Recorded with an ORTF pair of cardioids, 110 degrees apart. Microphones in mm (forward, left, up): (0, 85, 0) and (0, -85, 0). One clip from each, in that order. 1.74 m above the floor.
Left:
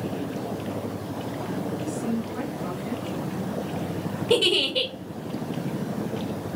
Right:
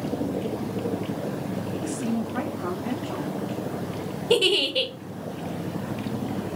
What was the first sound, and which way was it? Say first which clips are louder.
A woman speaking: even; 65° right.